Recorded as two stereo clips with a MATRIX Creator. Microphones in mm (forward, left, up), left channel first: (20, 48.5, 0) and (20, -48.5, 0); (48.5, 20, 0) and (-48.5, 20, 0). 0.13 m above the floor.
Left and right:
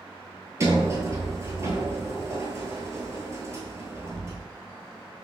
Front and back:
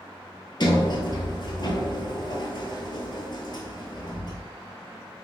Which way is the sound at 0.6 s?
30° right.